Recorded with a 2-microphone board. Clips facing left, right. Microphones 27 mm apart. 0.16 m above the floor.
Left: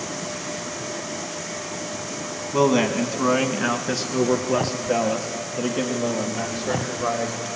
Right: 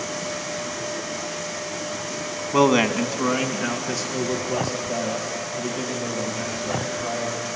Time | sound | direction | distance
2.5 | a man speaking | 30° right (ahead or behind) | 1.2 m